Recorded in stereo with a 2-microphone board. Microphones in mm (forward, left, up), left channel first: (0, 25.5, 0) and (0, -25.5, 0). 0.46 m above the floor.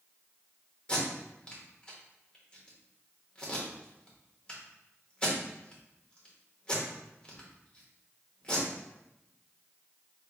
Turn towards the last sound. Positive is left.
turn(degrees=20)  # may be behind; listen again after turning